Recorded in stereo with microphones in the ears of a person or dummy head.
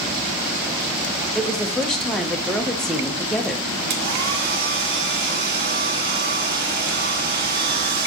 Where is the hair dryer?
60° right (ahead or behind), 2.5 m.